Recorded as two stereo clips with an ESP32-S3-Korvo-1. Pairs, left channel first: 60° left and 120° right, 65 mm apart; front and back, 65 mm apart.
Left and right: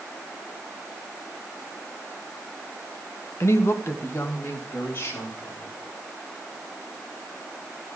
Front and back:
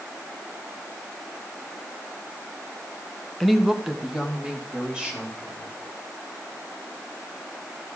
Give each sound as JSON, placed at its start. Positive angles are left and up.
{"t": 3.4, "sound": "a woman speaking", "azimuth_deg": 85, "distance_m": 0.8}